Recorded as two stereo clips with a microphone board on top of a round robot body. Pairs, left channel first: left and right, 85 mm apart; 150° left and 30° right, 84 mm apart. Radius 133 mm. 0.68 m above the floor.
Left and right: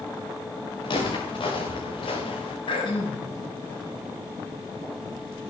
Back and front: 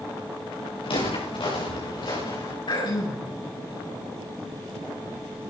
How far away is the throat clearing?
About 7 m.